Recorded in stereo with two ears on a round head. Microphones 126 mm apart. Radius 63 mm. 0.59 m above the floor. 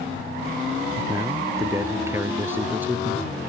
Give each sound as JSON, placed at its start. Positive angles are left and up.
{"t": 1.0, "sound": "a man speaking", "side_deg": -25}